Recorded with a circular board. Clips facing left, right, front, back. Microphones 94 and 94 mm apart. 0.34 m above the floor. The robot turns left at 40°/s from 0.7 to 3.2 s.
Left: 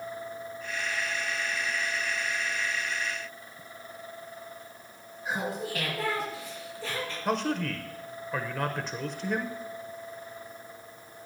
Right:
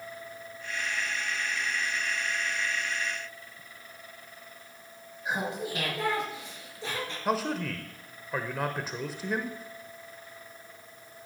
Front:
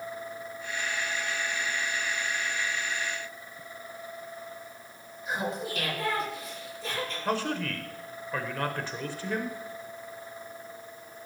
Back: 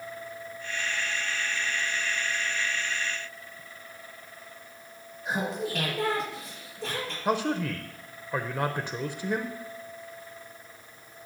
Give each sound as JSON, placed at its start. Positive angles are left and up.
{"t": 5.2, "sound": "laughter", "azimuth_deg": -160, "distance_m": 6.0}
{"t": 7.2, "sound": "a man speaking", "azimuth_deg": -165, "distance_m": 0.8}